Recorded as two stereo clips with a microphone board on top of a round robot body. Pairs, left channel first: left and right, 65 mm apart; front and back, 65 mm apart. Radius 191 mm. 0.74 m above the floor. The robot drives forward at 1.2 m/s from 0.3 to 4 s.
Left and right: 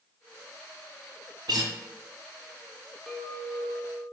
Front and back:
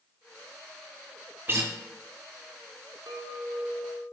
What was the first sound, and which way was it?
A guitar, 120° right.